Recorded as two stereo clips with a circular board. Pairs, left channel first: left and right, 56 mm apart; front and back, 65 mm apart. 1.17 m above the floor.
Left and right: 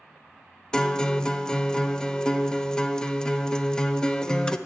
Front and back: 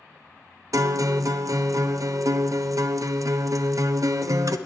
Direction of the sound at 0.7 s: 165° left.